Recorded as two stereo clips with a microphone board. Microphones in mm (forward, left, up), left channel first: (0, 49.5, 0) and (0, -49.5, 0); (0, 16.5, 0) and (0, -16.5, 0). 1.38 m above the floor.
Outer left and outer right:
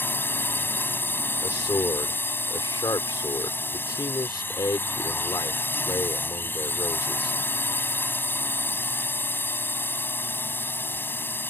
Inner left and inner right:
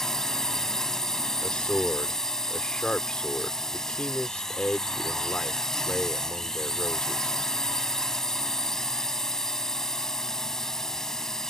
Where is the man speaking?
45° left (ahead or behind).